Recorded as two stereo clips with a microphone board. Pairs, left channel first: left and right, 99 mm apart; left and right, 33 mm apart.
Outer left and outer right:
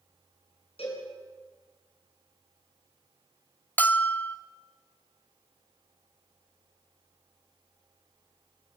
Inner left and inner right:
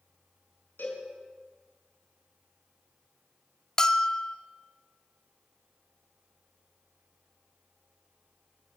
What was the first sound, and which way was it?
A cowbell, 75° left (ahead or behind).